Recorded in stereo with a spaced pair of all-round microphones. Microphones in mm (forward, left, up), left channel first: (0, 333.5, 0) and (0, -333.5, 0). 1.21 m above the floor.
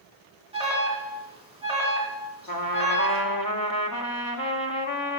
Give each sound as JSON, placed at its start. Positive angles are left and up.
{"t": 0.5, "sound": "an alarm", "side_deg": -10, "distance_m": 2.5}
{"t": 2.5, "sound": "a trumpet", "side_deg": 30, "distance_m": 1.2}